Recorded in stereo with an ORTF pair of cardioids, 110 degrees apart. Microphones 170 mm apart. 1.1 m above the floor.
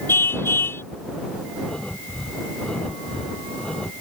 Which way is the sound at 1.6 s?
5° left.